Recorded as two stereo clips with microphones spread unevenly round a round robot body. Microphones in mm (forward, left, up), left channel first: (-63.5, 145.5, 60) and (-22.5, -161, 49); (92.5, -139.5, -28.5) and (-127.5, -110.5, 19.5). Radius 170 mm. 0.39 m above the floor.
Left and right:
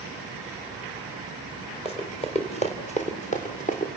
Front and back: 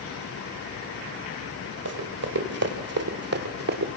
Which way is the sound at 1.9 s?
170° left.